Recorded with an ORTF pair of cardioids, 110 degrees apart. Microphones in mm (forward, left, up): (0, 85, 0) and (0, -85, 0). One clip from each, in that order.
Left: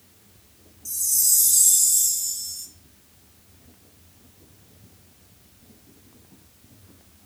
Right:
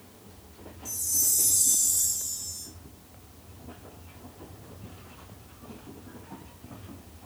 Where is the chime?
55° left, 1.0 m.